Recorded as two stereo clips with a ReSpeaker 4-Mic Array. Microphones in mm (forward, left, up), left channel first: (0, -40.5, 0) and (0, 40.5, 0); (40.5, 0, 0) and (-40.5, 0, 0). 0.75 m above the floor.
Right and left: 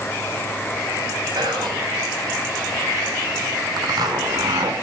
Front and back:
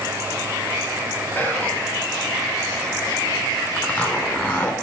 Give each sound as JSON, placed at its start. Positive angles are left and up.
{"t": 1.4, "sound": "whispering", "azimuth_deg": 65, "distance_m": 6.0}
{"t": 3.8, "sound": "a zipper", "azimuth_deg": 70, "distance_m": 1.9}